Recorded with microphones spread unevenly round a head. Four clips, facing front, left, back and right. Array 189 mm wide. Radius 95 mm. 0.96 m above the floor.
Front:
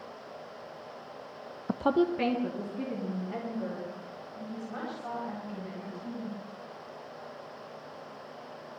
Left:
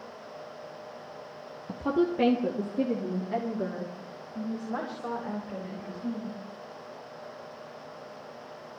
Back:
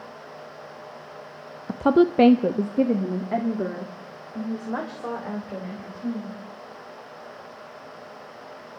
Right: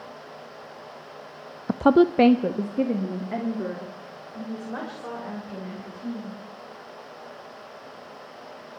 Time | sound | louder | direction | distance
1.7 | a woman speaking | right 9 dB, back 8 dB | 90° right | 0.5 m